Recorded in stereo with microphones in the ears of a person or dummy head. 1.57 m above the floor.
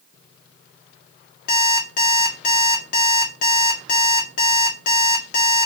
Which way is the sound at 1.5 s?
45° left (ahead or behind).